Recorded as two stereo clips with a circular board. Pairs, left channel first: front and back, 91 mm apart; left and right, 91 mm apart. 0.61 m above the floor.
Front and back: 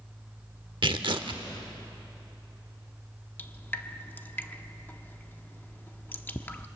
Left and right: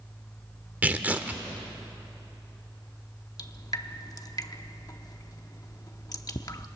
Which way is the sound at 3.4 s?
60° left.